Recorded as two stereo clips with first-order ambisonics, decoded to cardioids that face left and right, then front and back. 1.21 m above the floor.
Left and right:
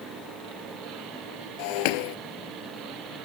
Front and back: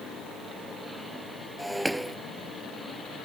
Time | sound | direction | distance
1.6 | breaking glass | 90° left | ?